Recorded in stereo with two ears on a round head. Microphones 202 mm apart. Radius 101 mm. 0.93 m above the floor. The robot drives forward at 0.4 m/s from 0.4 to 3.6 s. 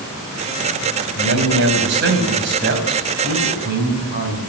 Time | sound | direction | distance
1.1 | a man speaking | 60° right (ahead or behind) | 5.5 m